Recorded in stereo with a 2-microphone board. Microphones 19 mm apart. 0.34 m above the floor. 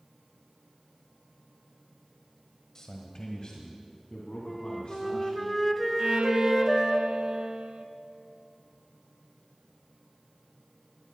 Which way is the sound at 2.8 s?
30° left (ahead or behind).